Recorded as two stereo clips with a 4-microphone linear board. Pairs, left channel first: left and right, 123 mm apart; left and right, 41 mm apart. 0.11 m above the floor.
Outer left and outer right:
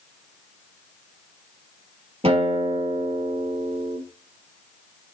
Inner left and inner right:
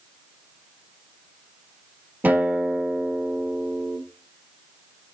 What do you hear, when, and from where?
2.2 s a guitar: 50° right (ahead or behind), 2.5 m